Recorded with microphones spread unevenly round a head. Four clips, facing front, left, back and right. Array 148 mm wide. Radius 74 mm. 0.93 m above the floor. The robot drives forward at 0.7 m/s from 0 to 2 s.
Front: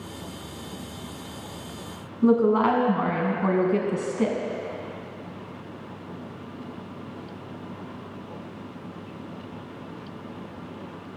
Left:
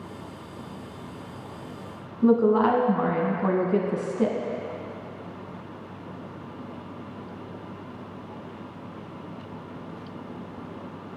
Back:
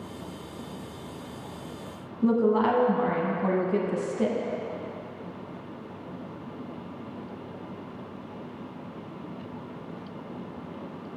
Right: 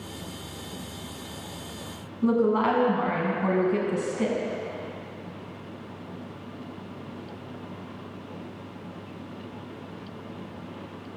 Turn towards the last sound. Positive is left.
turn(degrees=40)